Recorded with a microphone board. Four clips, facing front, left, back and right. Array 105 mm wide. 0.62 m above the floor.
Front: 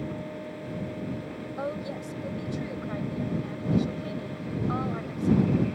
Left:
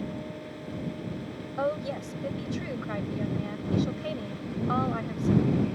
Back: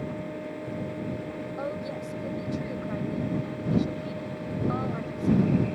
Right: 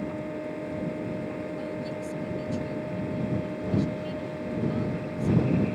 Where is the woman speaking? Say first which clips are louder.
Left 3 dB, front 2 dB; 85° left.